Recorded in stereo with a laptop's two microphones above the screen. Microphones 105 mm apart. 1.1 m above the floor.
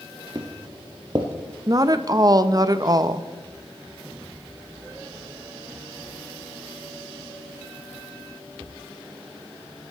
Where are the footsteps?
45° right (ahead or behind), 1.7 m.